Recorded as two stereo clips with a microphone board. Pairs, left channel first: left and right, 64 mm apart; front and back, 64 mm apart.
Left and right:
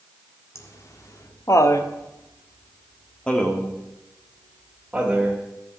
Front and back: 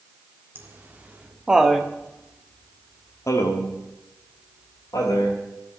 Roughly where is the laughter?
Behind left.